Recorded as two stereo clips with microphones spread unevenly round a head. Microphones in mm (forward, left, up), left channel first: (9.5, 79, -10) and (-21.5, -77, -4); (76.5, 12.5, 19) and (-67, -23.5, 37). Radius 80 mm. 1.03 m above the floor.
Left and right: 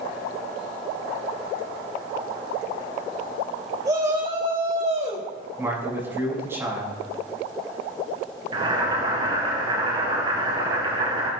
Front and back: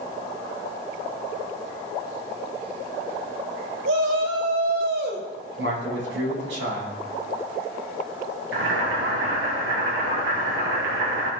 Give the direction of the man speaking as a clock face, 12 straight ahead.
6 o'clock.